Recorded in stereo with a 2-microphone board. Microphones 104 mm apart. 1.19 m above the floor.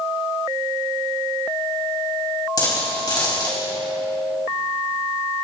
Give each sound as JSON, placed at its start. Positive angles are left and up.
{"t": 2.6, "sound": "a dropped coin", "side_deg": 40, "distance_m": 4.0}